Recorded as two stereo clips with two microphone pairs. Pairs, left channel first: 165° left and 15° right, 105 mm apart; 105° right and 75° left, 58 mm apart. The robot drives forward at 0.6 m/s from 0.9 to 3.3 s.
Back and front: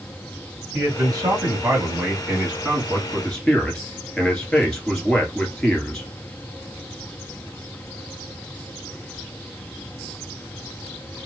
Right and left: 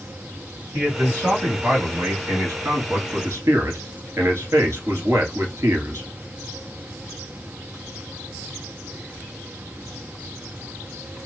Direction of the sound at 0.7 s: 40° left.